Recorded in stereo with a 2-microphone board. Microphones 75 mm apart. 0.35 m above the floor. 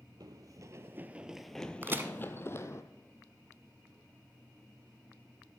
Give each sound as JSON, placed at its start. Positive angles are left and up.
{"t": 0.2, "sound": "running footsteps", "side_deg": -60, "distance_m": 0.7}
{"t": 1.8, "sound": "a crack", "side_deg": -30, "distance_m": 0.7}